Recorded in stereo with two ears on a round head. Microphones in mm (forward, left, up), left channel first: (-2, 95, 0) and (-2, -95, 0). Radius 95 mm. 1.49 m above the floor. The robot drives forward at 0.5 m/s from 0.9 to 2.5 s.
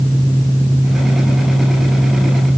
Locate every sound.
Only background noise.